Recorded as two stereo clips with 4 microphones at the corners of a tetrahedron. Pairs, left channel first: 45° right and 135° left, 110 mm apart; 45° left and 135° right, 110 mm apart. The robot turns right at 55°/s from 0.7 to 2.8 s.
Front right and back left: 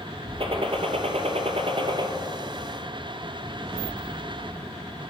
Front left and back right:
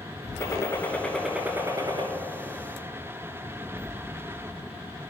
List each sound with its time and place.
0.4 s a gunshot: 110° left, 0.9 m; by 2.1 s 175° right, 0.9 m